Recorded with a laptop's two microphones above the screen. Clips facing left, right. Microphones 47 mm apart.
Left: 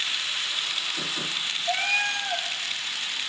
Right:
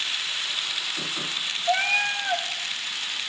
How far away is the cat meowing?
About 0.8 m.